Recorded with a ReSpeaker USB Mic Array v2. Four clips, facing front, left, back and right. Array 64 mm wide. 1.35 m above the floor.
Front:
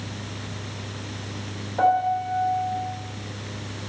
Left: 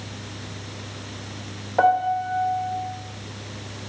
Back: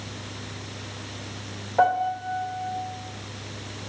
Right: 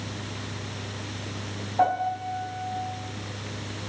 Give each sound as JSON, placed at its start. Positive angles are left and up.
{"t": 1.8, "sound": "a piano", "azimuth_deg": 110, "distance_m": 2.5}